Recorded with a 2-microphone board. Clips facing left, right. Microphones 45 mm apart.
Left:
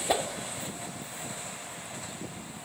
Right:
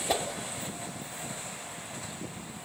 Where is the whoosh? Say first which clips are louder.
Left 2 dB; 10° left (ahead or behind), 1.6 m.